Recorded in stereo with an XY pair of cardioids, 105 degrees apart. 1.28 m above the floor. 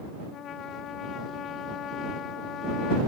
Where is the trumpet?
65° left.